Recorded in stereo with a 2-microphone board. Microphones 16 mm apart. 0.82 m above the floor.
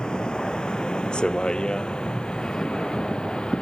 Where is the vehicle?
70° left (ahead or behind); by 3.6 s 80° left.